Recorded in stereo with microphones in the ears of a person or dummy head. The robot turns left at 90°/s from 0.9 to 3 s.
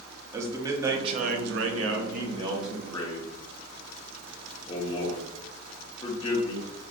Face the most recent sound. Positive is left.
turn(degrees=150)